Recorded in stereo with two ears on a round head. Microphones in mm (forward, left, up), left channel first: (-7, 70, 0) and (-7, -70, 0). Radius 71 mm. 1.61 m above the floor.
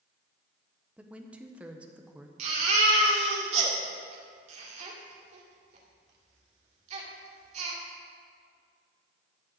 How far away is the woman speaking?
About 1.1 m.